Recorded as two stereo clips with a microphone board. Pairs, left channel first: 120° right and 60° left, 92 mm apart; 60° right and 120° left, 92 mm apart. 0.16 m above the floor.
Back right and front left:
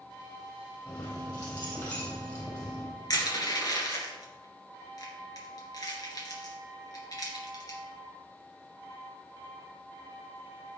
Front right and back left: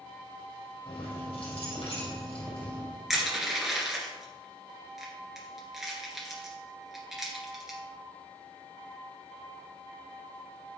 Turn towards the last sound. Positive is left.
turn(degrees=-155)